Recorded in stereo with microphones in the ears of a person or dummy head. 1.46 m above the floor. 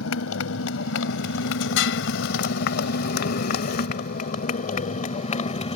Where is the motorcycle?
75° left (ahead or behind); by 5.8 s 35° left (ahead or behind).